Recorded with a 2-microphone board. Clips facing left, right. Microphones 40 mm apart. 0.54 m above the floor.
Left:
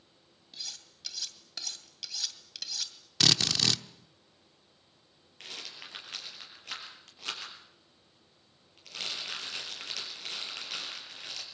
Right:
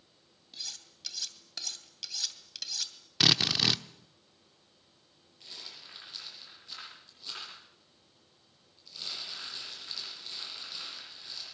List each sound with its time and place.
0.5 s cutlery clinking: centre (ahead or behind), 2 m
3.2 s a drill: 10° right (ahead or behind), 0.8 m
5.4 s a rattle: 75° left (ahead or behind), 7 m